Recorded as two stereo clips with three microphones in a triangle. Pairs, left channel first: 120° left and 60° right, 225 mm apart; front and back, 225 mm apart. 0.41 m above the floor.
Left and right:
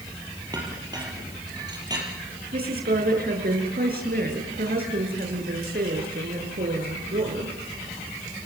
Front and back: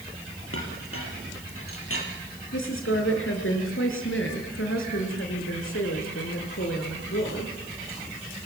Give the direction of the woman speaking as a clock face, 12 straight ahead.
1 o'clock.